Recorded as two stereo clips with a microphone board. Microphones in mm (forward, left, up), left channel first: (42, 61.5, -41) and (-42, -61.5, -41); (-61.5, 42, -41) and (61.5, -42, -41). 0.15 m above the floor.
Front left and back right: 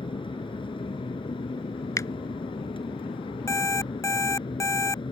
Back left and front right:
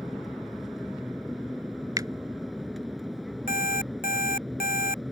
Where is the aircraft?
55° left.